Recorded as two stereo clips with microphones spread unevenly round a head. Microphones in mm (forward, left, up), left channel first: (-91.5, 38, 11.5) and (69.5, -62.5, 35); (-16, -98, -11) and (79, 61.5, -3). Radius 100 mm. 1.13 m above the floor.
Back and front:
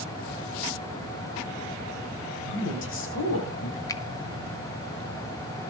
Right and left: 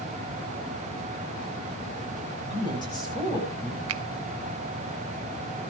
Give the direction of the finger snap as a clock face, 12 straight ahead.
9 o'clock.